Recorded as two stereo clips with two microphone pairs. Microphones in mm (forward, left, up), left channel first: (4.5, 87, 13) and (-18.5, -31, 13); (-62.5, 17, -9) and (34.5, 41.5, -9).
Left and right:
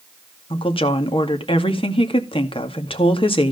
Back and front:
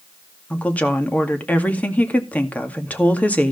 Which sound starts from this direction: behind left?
A woman speaking, at 0.5 s.